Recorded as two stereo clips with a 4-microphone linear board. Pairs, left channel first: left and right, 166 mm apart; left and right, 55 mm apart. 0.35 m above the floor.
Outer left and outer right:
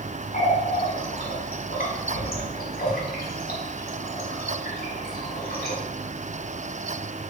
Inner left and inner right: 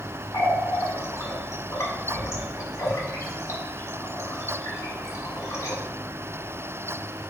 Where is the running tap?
70° left (ahead or behind), 1.5 m.